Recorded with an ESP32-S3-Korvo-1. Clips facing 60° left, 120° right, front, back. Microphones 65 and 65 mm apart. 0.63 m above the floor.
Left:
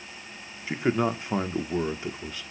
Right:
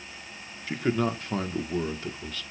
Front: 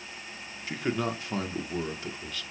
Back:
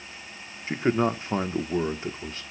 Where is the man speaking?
130° left, 1.4 m.